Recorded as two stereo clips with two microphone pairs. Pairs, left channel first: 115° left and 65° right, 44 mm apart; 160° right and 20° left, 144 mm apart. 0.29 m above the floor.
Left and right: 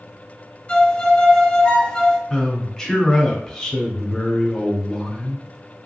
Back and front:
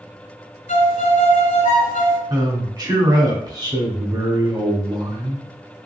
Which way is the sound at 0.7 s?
Straight behind.